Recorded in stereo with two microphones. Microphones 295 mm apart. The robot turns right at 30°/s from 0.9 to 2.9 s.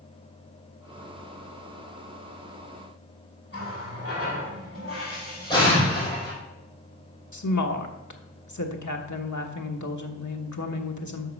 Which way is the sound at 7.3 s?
75° left (ahead or behind).